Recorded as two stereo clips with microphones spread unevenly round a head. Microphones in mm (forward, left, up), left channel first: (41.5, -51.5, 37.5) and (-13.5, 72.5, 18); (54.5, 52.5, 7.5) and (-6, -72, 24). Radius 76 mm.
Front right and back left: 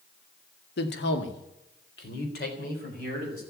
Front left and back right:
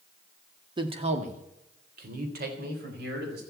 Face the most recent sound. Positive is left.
turn(degrees=-105)